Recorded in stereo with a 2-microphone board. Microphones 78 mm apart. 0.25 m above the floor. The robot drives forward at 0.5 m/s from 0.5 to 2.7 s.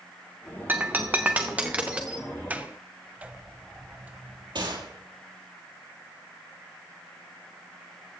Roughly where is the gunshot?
Right.